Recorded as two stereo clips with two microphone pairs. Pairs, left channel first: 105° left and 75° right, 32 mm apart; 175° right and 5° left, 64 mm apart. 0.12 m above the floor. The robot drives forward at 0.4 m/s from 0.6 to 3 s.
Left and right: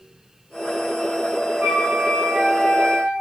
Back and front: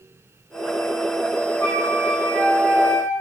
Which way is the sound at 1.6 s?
105° right.